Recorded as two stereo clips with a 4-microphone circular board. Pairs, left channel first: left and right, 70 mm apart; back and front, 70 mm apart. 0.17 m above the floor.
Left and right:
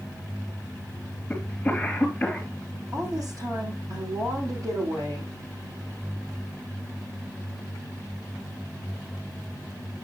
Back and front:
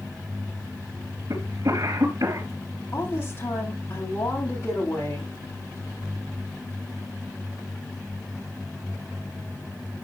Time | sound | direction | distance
1.3 | a cough | 10° left | 3 m
2.9 | a woman speaking | 125° right | 8 m